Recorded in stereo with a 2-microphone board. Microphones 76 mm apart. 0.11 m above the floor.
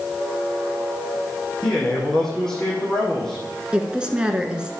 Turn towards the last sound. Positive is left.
turn(degrees=-10)  # may be behind; listen again after turning